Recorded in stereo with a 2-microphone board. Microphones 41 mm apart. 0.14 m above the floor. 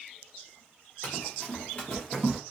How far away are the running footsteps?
About 0.9 m.